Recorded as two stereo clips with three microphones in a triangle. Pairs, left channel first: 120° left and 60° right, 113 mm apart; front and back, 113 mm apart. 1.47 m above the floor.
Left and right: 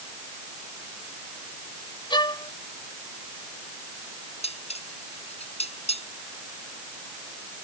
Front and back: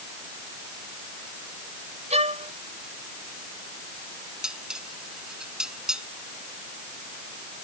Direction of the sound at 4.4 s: 95° left.